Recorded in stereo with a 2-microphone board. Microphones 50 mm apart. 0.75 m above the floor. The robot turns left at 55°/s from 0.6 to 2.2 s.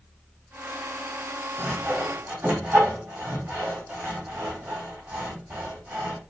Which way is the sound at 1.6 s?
5° right (ahead or behind).